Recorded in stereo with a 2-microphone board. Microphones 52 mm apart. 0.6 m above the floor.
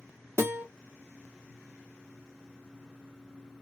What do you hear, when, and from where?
0.4 s a guitar: 55° right (ahead or behind), 1.6 m